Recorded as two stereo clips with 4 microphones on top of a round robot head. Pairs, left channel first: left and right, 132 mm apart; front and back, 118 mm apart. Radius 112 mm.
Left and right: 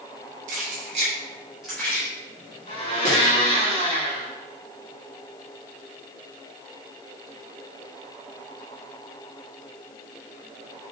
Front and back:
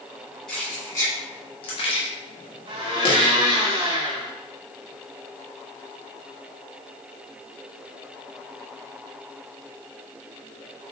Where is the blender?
135° left, 1.9 m.